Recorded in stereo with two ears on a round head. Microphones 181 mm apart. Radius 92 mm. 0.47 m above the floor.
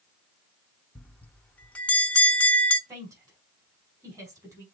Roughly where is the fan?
No fan in this recording.